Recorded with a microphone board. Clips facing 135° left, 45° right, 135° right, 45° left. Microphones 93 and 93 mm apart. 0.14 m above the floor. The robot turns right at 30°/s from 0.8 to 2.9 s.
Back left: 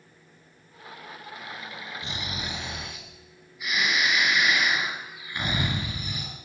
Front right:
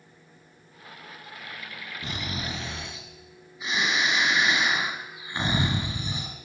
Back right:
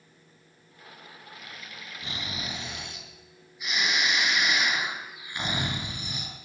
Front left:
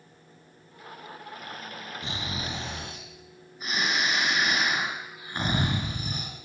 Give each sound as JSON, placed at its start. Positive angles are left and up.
{"t": 2.0, "sound": "snoring", "azimuth_deg": -20, "distance_m": 2.5}